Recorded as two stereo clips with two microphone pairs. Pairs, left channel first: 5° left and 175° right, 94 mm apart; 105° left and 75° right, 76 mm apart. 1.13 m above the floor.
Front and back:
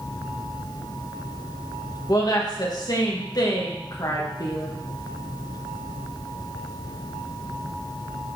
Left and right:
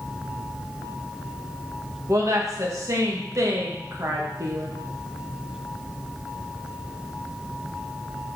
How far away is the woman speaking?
About 1.5 m.